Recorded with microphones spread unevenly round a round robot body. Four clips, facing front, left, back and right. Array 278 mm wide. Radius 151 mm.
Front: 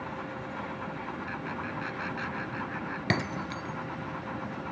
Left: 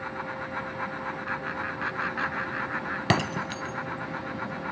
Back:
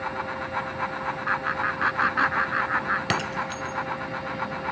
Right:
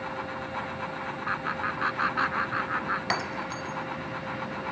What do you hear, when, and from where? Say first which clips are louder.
1.3 s laughter: right 2 dB, back 9 dB; 165° right
3.1 s breaking glass: left 4 dB, back 4 dB; 75° left